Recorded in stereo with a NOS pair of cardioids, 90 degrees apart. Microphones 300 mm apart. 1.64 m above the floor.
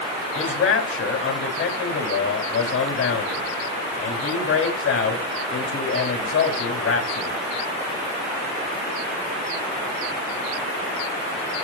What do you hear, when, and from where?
0.3 s a man speaking: 45° left, 4 m